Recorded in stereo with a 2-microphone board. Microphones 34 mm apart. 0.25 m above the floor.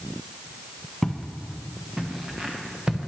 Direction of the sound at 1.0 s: Centre (ahead or behind).